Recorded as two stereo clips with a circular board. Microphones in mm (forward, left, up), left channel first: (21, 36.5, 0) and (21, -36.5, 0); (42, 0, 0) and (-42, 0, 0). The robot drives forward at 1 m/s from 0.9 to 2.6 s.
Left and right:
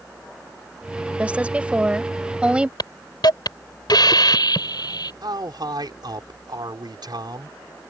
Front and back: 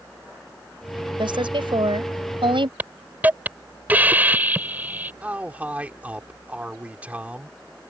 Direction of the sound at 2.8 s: 110° left.